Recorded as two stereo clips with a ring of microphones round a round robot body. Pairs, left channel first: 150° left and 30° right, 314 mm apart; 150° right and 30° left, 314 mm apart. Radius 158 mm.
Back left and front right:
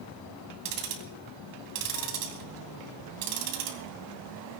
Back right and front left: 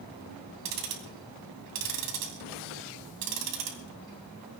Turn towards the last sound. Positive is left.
turn(degrees=0)